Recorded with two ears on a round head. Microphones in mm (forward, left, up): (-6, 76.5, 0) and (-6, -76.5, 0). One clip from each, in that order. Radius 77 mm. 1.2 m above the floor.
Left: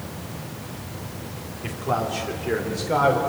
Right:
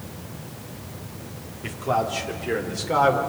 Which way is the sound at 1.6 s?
10° right (ahead or behind).